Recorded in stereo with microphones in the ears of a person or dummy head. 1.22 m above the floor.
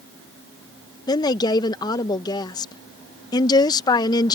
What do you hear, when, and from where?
1.1 s a woman speaking: 20° left (ahead or behind)